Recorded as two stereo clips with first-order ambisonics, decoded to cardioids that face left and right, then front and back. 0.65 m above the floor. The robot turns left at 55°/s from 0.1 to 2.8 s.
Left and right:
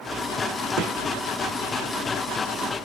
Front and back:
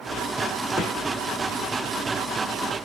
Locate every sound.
0.8 s a gunshot: 95° right, 2.5 m; by 1.0 s 110° right, 2.5 m